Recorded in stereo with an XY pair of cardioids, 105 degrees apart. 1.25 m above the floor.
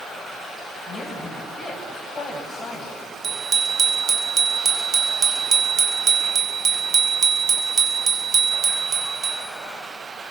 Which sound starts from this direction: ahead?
A woman speaking, at 0.9 s.